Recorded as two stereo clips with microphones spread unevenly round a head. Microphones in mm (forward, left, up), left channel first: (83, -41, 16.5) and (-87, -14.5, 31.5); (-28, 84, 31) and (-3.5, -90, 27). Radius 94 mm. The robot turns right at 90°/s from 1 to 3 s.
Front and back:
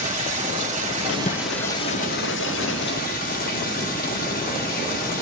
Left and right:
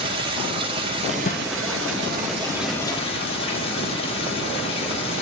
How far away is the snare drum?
About 0.8 m.